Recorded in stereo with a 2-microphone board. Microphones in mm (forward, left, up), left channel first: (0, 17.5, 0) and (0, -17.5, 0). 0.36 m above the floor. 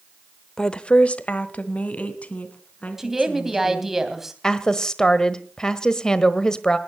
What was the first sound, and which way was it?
A woman speaking, 20° left (ahead or behind).